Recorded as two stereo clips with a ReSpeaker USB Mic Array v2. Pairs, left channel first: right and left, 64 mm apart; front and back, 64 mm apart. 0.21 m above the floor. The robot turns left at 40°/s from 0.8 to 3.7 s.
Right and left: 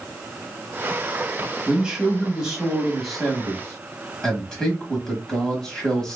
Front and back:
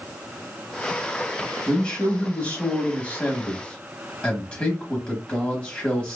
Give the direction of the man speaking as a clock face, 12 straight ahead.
10 o'clock.